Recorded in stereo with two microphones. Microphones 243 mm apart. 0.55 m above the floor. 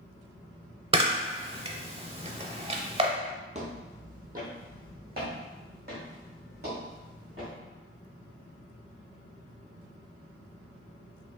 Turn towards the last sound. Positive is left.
turn(degrees=-45)  # may be behind; listen again after turning